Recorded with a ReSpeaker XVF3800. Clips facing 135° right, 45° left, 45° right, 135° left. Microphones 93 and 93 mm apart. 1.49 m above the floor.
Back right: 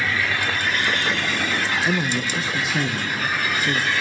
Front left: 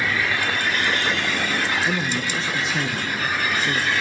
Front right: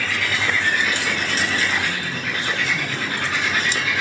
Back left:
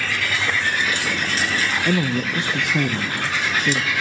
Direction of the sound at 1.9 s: 140° left.